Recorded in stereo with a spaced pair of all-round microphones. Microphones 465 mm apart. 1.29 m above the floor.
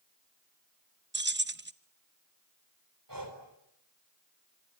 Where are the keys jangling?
25° right (ahead or behind), 0.7 m.